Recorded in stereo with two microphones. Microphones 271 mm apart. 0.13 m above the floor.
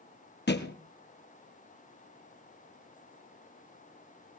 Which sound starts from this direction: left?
A thud, at 0.5 s.